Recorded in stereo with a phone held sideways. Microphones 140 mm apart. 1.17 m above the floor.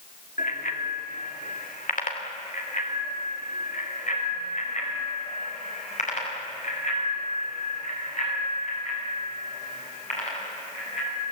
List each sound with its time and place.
0.4 s a bicycle bell: 85° left, 2 m; by 11.2 s 65° left (ahead or behind), 9 m